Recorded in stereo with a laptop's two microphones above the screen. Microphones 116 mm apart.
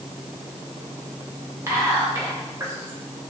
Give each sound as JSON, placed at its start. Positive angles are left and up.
{"t": 1.7, "sound": "whispering", "side_deg": -25, "distance_m": 1.8}